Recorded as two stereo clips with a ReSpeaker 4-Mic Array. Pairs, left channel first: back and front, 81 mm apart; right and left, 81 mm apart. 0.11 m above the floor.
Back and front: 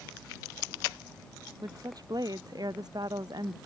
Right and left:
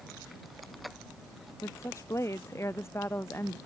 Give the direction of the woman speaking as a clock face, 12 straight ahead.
1 o'clock.